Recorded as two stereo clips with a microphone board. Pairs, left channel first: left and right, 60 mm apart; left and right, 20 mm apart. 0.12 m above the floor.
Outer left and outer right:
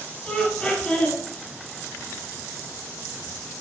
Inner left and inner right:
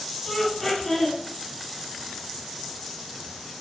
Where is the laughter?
10° left (ahead or behind), 2.5 m.